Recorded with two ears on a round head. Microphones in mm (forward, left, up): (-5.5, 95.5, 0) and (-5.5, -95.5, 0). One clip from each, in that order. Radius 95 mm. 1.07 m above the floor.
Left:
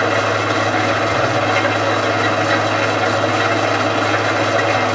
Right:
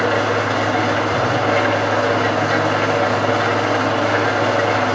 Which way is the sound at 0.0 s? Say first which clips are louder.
Left 1 dB; 40° left (ahead or behind).